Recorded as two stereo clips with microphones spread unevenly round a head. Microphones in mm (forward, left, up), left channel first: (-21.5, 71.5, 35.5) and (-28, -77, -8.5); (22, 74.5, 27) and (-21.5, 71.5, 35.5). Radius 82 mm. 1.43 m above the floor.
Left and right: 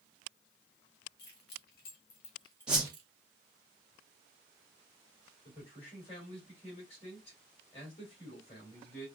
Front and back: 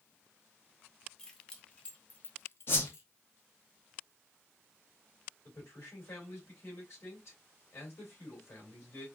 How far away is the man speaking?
About 2.5 m.